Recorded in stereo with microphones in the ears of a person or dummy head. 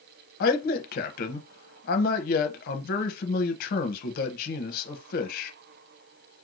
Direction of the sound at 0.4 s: 45° left (ahead or behind).